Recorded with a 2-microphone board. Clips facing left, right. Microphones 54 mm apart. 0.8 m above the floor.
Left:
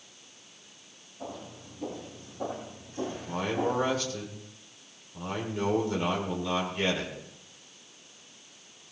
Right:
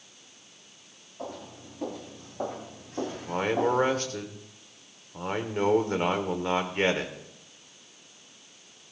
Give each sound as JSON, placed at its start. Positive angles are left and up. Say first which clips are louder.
{"t": 1.2, "sound": "footsteps", "louder": "right 2 dB", "side_deg": -85, "distance_m": 10.0}
{"t": 3.1, "sound": "a man speaking", "louder": "right 5 dB", "side_deg": -45, "distance_m": 2.0}